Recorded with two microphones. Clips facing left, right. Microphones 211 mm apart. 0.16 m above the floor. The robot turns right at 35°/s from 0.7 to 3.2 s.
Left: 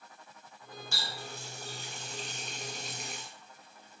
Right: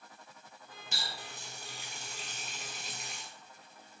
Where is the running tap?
20° right (ahead or behind), 0.7 m; by 3.3 s 5° left (ahead or behind), 0.7 m.